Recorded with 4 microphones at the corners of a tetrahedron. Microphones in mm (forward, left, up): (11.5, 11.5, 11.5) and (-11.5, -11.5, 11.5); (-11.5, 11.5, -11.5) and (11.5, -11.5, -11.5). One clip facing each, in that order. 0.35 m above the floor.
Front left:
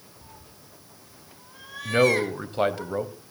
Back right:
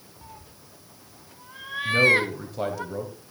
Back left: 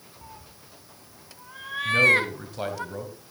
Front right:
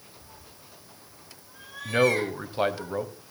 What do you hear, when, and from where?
0.2 s a cat meowing: 170° left, 1.2 m
1.9 s a man speaking: 10° left, 1.7 m